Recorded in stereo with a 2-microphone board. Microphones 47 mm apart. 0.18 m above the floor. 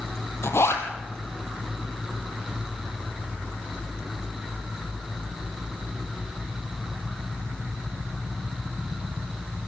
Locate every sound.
0.4 s a zipper: 65° left (ahead or behind), 2.5 m